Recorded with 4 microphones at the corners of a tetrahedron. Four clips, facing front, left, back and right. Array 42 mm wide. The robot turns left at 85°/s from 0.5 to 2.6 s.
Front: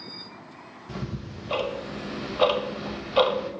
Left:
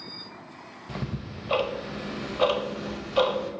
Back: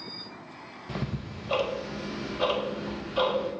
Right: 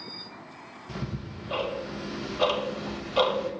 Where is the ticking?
145° left, 0.5 m; by 3.5 s straight ahead, 0.5 m.